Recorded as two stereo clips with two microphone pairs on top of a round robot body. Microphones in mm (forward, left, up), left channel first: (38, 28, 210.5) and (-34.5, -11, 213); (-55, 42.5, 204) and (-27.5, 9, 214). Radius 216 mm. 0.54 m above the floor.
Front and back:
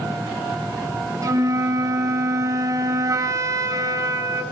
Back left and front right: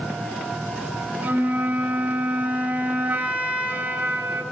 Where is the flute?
100° right, 2.5 m.